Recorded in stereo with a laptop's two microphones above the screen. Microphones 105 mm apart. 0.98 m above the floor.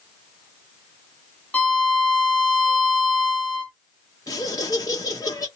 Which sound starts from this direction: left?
Laughter, at 4.3 s.